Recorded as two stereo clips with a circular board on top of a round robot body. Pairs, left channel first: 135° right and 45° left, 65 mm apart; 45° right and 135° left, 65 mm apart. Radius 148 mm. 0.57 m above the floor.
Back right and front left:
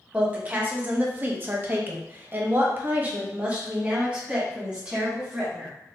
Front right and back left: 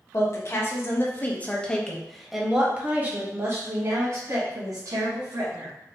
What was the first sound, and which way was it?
A woman speaking, 20° right.